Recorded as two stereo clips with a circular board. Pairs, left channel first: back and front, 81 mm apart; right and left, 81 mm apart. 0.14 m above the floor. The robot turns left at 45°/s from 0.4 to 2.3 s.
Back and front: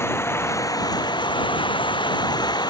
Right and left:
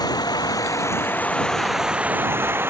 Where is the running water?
120° right; by 2.7 s 150° left.